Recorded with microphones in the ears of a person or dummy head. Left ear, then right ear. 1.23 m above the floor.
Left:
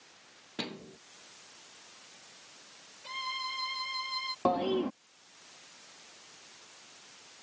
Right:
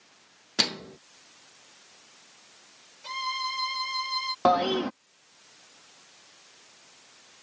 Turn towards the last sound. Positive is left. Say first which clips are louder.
# right 7 dB
turn(degrees=-55)  # may be behind; listen again after turning